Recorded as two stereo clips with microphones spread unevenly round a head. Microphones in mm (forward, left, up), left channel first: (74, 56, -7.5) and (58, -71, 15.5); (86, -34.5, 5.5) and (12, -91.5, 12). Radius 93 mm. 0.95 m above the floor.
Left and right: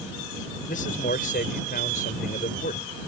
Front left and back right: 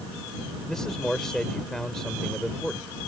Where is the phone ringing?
No phone ringing in this recording.